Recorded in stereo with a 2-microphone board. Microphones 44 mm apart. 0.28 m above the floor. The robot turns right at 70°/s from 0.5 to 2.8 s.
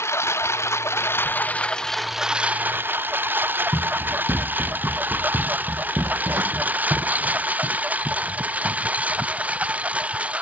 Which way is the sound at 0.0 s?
80° left.